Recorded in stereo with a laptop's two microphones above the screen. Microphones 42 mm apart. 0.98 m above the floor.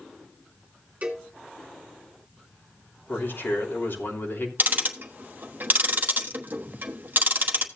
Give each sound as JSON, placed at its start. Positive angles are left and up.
{"t": 1.0, "sound": "a cowbell", "side_deg": -35, "distance_m": 2.5}
{"t": 3.1, "sound": "a man speaking", "side_deg": 65, "distance_m": 3.0}
{"t": 4.6, "sound": "ticking", "side_deg": -45, "distance_m": 1.1}